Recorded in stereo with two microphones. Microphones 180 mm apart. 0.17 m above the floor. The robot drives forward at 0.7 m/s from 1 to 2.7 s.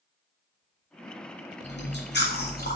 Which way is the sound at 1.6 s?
80° left.